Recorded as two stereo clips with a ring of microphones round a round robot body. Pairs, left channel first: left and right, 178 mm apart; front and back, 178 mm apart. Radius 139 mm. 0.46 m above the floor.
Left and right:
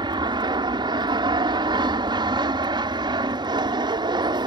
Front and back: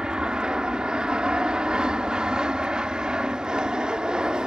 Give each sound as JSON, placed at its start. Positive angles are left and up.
{"t": 0.0, "sound": "an aircraft", "azimuth_deg": -100}